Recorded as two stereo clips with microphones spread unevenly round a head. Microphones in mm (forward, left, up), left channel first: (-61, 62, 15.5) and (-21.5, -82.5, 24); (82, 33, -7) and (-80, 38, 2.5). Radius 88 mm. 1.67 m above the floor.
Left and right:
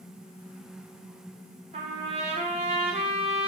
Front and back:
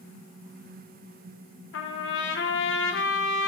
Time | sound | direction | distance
1.7 | a trumpet | 20° right | 0.6 m